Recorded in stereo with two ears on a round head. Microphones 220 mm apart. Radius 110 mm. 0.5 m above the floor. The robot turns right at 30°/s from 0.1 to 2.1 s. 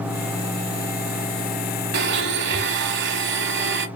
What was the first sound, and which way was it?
A blender, 45° right (ahead or behind).